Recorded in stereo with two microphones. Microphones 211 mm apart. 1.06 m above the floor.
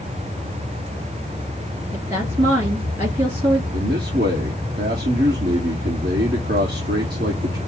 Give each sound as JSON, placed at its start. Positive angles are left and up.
{"t": 1.9, "sound": "a woman speaking", "side_deg": -25, "distance_m": 2.5}
{"t": 3.7, "sound": "a man speaking", "side_deg": -50, "distance_m": 1.4}